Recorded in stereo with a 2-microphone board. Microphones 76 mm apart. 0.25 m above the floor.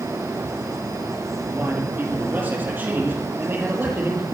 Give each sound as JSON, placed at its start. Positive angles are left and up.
{"t": 1.5, "sound": "a man speaking", "side_deg": -25, "distance_m": 6.5}